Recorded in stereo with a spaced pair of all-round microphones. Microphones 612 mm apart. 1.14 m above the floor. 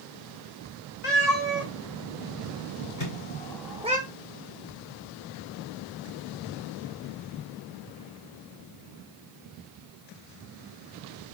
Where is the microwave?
80° left, 3 m.